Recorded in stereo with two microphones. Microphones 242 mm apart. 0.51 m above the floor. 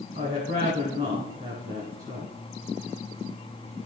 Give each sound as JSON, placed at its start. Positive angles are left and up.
{"t": 0.1, "sound": "a woman speaking", "side_deg": -35, "distance_m": 2.0}